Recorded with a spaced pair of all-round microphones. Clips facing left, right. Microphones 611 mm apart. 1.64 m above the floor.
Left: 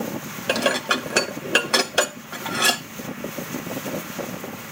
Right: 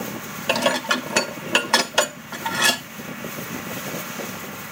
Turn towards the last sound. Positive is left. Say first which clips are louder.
# even
turn(degrees=-25)  # may be behind; listen again after turning